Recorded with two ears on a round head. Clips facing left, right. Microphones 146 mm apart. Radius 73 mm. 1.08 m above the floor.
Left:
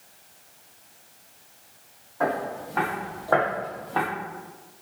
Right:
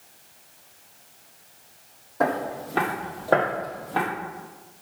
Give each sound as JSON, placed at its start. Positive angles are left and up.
{"t": 2.2, "sound": "footsteps", "side_deg": -50, "distance_m": 1.9}